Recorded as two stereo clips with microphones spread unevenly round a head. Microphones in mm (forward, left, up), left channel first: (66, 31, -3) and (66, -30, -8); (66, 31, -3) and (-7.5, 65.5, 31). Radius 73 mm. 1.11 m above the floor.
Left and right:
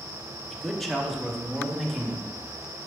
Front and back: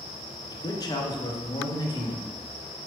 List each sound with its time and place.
0.5 s a man speaking: 5° left, 1.2 m; by 2.4 s 5° right, 2 m